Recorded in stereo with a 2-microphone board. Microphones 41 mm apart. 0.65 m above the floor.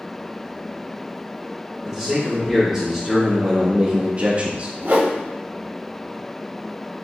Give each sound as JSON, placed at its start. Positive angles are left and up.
{"t": 1.8, "sound": "a man speaking", "side_deg": -5, "distance_m": 1.5}
{"t": 4.8, "sound": "a whoosh", "side_deg": -55, "distance_m": 0.7}